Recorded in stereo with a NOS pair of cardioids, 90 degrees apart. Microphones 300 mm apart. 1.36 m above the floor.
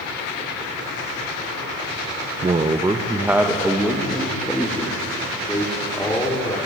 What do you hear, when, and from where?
2.4 s a man speaking: 20° right, 1.2 m; by 6.6 s 10° left, 4.5 m